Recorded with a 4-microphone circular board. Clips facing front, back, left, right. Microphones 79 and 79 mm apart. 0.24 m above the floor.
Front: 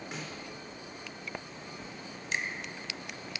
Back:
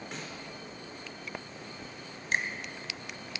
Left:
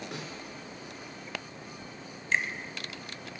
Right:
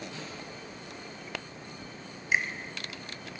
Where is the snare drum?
85° left, 4 m.